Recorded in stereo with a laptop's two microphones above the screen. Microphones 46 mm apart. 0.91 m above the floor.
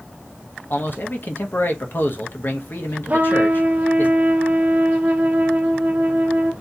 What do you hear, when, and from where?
0.7 s a man speaking: 50° left (ahead or behind), 0.7 m
3.1 s a trumpet: 35° right (ahead or behind), 0.7 m